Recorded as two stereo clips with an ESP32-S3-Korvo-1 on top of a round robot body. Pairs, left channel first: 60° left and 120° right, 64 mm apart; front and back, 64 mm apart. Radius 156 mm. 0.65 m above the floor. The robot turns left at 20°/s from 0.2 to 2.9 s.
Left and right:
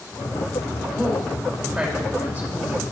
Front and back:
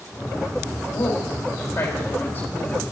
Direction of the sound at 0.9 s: 30° right.